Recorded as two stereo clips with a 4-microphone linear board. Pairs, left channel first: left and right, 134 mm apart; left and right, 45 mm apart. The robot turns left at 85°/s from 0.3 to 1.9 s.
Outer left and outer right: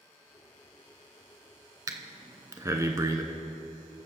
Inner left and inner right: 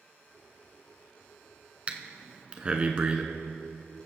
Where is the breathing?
30° right (ahead or behind), 0.7 m; by 3.2 s 25° right (ahead or behind), 0.7 m.